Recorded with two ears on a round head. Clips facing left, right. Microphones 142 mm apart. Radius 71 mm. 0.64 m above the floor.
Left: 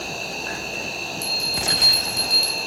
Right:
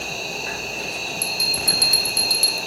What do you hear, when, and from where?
0.0 s an insect: 15° right (ahead or behind), 2.5 m
1.2 s a bell: 25° right (ahead or behind), 1.3 m